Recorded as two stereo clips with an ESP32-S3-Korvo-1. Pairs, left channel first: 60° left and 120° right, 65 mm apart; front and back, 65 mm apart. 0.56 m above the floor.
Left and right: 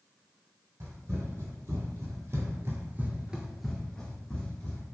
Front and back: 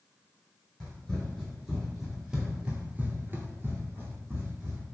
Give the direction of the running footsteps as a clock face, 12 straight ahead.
3 o'clock.